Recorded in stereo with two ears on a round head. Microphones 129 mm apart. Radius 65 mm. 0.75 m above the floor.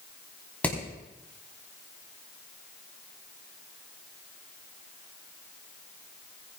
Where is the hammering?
10° left (ahead or behind), 4 m.